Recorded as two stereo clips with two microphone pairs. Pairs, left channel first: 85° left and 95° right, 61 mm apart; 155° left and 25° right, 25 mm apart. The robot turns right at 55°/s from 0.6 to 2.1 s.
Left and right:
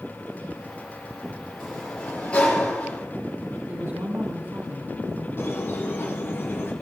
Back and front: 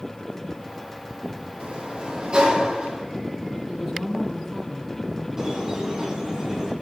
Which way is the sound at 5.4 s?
40° left.